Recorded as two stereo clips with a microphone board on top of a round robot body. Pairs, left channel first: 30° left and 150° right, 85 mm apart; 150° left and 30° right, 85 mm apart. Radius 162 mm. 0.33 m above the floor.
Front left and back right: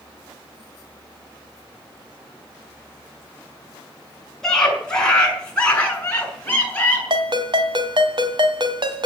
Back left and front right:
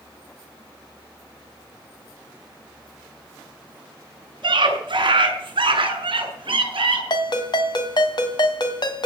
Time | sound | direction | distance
4.4 | a scream | 55° right | 6 m
7.1 | a ringtone | straight behind | 1.9 m